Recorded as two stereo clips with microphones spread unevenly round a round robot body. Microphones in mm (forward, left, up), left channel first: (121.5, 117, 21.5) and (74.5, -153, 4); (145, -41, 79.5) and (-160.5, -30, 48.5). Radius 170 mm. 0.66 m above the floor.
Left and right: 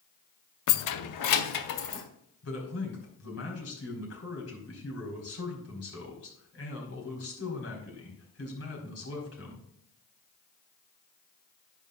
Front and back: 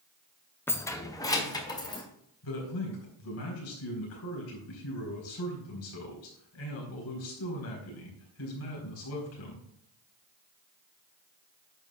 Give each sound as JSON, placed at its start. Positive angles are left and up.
{"t": 0.7, "sound": "keys jangling", "azimuth_deg": 85, "distance_m": 0.6}
{"t": 2.4, "sound": "a man speaking", "azimuth_deg": 45, "distance_m": 4.0}